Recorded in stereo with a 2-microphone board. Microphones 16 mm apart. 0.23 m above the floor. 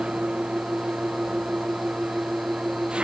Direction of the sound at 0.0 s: 85° right.